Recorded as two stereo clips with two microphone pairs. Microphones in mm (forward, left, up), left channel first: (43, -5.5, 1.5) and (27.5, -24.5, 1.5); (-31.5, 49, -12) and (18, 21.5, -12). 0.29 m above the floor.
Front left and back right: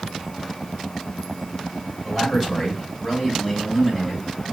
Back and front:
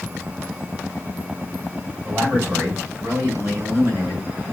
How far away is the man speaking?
About 2 m.